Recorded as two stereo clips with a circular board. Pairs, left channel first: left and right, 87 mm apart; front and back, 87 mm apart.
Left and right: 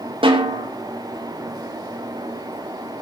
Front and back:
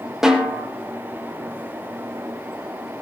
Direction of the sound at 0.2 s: 95° right.